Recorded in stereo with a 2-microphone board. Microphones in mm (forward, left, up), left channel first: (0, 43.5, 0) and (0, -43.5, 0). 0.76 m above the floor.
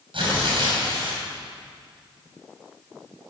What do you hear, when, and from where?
0.1 s tearing paper: 75° right (ahead or behind), 5.5 m